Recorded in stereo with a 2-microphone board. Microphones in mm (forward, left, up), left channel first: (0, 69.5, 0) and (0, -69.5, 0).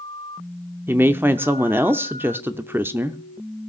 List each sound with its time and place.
0.9 s a woman speaking: 15° right (ahead or behind), 0.7 m